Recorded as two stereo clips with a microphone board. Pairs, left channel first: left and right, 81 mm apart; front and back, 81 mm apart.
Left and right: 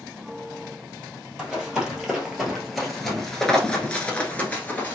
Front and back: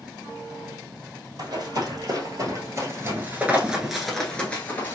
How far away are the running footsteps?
About 1.7 m.